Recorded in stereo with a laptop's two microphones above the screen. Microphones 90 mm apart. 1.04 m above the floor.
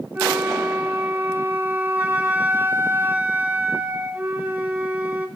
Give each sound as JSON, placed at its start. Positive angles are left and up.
{"t": 0.1, "sound": "a flute", "side_deg": -15, "distance_m": 2.0}